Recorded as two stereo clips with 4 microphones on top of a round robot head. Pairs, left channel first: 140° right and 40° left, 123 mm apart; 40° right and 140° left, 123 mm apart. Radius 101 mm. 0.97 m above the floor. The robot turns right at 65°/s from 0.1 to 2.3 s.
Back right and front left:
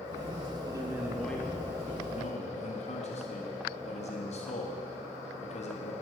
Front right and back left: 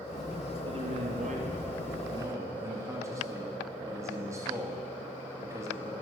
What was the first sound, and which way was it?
A man speaking, 95° left.